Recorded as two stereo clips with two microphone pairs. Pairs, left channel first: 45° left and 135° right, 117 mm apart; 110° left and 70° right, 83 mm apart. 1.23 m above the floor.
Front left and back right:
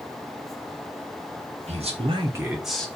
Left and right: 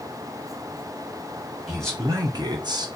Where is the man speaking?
130° right, 1.0 m; by 2.9 s 40° right, 0.9 m.